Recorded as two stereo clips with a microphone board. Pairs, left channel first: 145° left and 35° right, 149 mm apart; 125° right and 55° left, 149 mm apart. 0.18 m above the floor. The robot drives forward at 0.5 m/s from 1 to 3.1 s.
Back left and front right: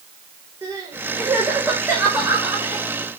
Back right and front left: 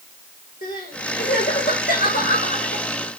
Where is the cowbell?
No cowbell in this recording.